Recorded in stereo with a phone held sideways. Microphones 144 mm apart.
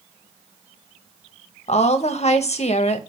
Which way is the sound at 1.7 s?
50° left (ahead or behind).